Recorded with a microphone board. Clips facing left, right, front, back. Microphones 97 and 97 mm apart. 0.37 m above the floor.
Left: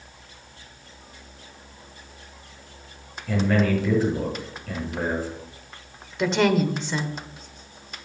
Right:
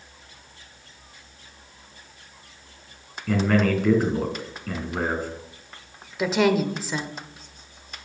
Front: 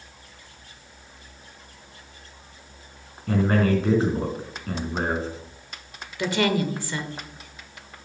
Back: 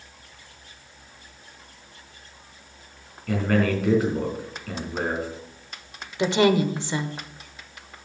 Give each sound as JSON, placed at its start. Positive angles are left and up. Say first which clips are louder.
{"t": 3.3, "sound": "a man speaking", "louder": "right 1 dB, front 1 dB", "azimuth_deg": -55, "distance_m": 4.0}
{"t": 6.2, "sound": "a woman speaking", "louder": "even, back 4 dB", "azimuth_deg": -170, "distance_m": 0.9}